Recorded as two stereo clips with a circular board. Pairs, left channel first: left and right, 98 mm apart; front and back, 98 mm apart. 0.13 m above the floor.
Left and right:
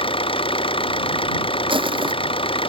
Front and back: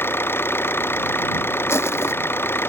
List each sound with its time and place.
0.0 s an engine running: 65° left
1.7 s crushing: 65° right